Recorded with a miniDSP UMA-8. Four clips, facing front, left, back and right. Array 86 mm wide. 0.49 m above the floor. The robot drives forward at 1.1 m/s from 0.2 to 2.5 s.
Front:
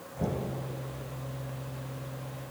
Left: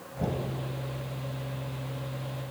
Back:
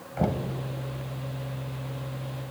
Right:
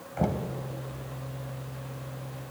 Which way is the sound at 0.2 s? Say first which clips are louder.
Right 3 dB, back 5 dB; 140° right.